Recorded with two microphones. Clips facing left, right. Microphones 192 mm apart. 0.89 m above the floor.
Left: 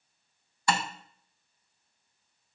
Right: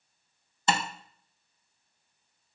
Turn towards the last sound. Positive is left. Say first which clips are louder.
# right 1 dB
turn(degrees=-20)  # may be behind; listen again after turning